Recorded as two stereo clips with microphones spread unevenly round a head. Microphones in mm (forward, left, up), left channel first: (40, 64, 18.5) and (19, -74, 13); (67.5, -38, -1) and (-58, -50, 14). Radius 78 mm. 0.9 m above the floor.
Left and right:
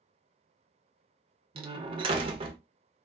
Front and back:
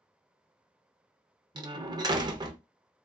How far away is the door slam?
About 0.5 m.